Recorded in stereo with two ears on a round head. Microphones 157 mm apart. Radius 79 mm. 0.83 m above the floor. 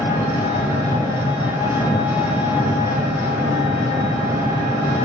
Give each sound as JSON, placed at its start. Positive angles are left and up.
{"t": 0.0, "sound": "an engine running", "side_deg": -15, "distance_m": 1.7}